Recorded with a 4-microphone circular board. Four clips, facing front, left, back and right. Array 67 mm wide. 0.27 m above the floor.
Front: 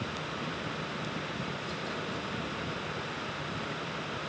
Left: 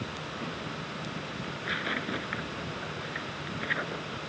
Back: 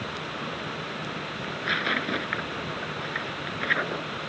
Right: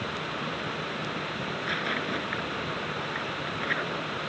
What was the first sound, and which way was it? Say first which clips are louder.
Tearing paper: right 1 dB, back 9 dB; 175° right.